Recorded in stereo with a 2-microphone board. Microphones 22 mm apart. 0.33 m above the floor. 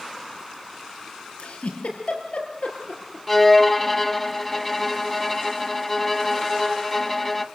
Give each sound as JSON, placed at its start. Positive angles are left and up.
{"t": 1.4, "sound": "a giggle", "side_deg": 75, "distance_m": 6.5}
{"t": 3.3, "sound": "a violin", "side_deg": 5, "distance_m": 1.1}